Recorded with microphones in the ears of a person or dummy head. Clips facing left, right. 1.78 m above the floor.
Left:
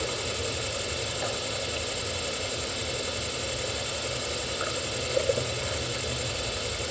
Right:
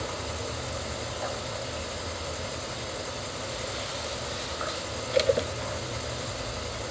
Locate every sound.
0.0 s an insect: 45° left (ahead or behind), 2.5 m